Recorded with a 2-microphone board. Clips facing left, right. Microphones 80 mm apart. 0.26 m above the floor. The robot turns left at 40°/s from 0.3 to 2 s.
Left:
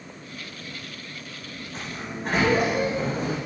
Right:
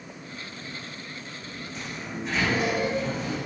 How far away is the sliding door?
About 6 m.